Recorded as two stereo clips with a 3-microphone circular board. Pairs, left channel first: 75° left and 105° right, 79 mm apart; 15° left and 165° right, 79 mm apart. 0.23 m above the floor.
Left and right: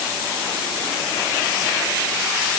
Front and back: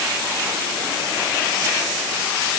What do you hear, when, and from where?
Only background noise.